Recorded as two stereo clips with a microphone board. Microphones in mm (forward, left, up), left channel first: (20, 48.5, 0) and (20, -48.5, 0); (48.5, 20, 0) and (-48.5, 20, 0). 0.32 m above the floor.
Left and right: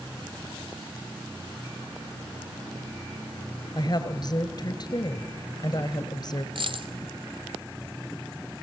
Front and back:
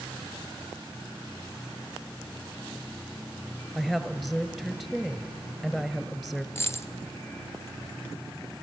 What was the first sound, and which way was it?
A woman speaking, 100° left.